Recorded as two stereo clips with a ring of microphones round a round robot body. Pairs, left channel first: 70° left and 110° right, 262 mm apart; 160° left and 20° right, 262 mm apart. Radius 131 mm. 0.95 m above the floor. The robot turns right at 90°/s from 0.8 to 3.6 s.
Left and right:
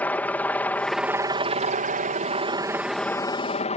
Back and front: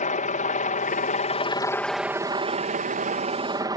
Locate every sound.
0.0 s a helicopter: 145° left; by 3.8 s 35° left